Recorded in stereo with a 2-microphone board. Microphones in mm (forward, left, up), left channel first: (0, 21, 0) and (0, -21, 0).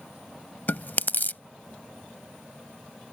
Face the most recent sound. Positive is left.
turn(degrees=55)  # may be behind; listen again after turning